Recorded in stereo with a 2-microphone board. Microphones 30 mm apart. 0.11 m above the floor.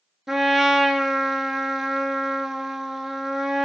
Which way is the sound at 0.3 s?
10° right (ahead or behind).